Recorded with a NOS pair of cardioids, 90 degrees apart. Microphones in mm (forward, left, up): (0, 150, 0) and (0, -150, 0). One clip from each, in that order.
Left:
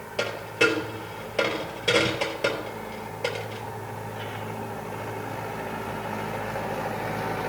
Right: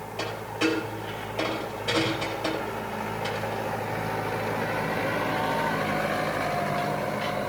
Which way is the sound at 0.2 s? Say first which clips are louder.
Left 5 dB; 70° left.